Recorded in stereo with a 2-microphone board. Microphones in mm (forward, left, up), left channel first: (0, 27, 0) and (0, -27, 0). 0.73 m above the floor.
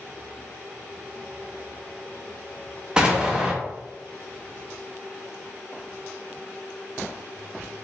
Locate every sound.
3.0 s an explosion: 15° right (ahead or behind), 0.9 m